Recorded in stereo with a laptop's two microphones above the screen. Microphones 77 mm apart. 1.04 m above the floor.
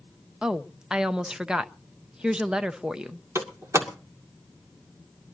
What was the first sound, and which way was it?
A woman speaking, 10° right (ahead or behind).